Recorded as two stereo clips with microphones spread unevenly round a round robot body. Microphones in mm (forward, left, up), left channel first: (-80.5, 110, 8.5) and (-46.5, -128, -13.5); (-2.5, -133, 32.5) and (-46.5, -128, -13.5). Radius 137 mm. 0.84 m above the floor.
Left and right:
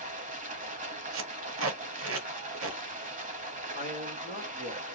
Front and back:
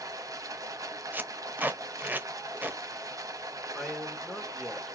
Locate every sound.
0.0 s running water: 135° right, 0.9 m
1.1 s tape being pulled: 90° right, 0.8 m
3.8 s a man speaking: 130° right, 2.0 m